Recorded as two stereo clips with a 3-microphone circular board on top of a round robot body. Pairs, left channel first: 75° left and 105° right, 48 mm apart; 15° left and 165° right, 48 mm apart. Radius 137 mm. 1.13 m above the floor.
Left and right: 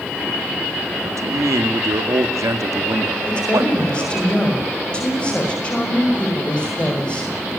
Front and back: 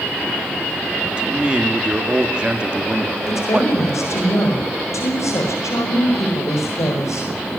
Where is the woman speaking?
10° left, 5.5 m.